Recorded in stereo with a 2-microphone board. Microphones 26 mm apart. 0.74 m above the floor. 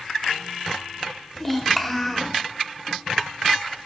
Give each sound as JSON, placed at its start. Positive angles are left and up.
{"t": 1.4, "sound": "a child speaking", "side_deg": 10, "distance_m": 1.4}